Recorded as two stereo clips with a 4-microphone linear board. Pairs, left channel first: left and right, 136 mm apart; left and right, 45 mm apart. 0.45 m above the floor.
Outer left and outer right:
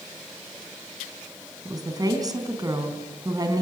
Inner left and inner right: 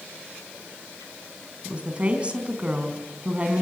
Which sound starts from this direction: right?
A woman speaking, at 1.6 s.